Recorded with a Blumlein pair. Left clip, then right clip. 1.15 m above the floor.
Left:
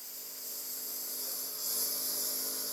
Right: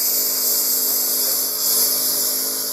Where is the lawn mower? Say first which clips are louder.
Right 24 dB; 50° right; by 2.7 s 60° right.